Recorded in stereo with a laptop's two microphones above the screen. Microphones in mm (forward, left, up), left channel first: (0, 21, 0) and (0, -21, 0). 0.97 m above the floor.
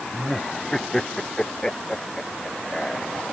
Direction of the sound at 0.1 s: 10° left (ahead or behind).